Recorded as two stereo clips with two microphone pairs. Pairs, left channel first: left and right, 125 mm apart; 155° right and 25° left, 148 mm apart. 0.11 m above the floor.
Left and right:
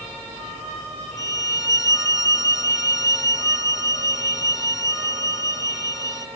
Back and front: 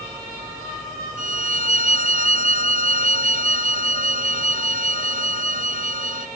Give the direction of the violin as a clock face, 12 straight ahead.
11 o'clock.